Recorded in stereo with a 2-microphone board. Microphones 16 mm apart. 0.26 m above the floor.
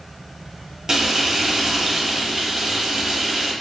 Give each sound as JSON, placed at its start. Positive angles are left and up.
{"t": 0.9, "sound": "frying", "side_deg": -30, "distance_m": 0.9}